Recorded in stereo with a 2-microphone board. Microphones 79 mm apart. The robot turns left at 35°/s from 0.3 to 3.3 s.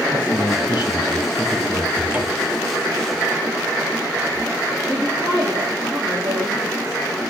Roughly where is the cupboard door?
Right.